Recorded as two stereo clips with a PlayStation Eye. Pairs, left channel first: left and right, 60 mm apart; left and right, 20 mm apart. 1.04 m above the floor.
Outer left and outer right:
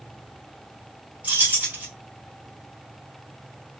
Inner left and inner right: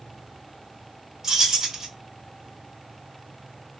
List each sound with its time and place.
1.2 s keys jangling: 25° right (ahead or behind), 1.4 m